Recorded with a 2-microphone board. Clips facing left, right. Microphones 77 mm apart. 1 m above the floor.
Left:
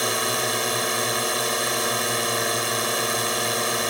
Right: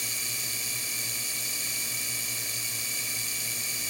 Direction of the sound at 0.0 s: 70° left (ahead or behind).